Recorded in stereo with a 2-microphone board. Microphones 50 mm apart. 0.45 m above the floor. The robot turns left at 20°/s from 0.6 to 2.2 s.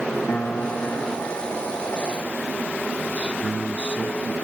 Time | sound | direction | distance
0.3 | a piano | 150° left | ?
3.1 | a man speaking | 25° right (ahead or behind) | ?